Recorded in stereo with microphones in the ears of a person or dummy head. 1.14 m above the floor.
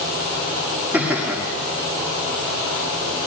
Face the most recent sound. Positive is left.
turn(degrees=-5)  # may be behind; listen again after turning